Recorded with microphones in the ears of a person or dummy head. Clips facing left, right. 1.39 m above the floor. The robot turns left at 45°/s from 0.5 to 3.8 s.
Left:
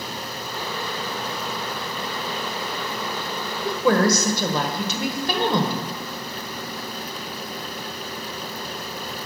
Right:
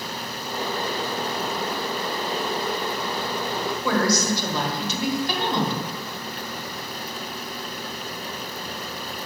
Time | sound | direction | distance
3.6 | a woman speaking | 60° left (ahead or behind) | 1.2 m